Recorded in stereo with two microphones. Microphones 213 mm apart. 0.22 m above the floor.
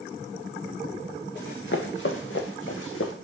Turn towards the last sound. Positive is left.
turn(degrees=75)  # may be behind; listen again after turning